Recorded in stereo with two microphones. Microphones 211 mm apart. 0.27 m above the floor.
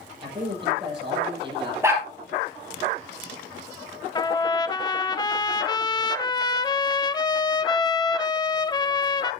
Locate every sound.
0.2 s a man speaking: 25° right (ahead or behind), 8 m
1.8 s a dog barking: 15° right (ahead or behind), 3 m
4.2 s a trumpet: 20° left (ahead or behind), 0.6 m